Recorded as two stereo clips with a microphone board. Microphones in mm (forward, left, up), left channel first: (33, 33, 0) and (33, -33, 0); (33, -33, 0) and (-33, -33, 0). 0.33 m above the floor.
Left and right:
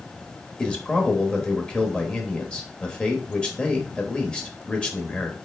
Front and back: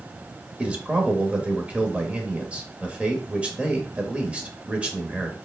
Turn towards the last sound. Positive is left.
turn(degrees=140)